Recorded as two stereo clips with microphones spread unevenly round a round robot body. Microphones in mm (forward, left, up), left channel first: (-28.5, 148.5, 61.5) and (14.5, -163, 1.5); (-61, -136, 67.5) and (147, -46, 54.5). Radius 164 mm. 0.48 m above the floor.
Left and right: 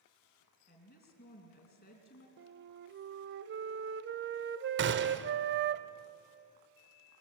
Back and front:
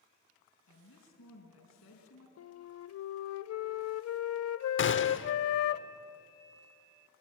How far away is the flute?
About 0.7 m.